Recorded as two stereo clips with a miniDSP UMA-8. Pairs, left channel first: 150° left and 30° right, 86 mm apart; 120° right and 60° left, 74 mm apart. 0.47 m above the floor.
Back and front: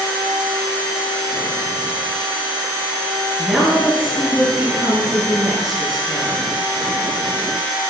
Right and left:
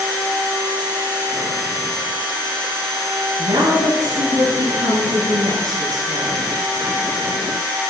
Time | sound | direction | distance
3.4 | a woman speaking | 60° left | 8.5 m